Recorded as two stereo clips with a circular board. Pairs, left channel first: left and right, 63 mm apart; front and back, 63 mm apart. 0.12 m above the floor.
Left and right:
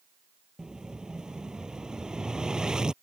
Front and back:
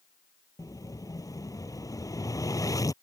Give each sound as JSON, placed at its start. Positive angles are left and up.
{"t": 0.6, "sound": "an explosion", "azimuth_deg": -15}